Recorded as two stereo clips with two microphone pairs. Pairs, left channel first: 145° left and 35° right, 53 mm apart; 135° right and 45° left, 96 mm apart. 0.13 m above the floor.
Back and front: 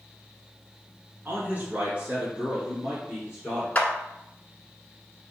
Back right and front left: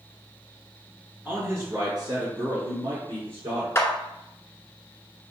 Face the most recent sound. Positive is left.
turn(degrees=-175)